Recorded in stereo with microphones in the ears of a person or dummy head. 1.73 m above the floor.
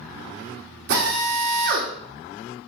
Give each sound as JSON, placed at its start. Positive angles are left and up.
{"t": 0.9, "sound": "a drill", "side_deg": -45, "distance_m": 1.5}